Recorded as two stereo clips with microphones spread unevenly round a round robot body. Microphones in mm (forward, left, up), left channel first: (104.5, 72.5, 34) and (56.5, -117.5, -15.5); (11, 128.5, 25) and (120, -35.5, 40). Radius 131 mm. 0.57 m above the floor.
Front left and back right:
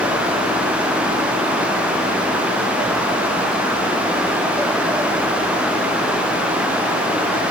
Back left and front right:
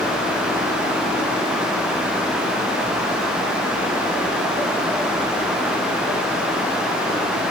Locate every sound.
Only background noise.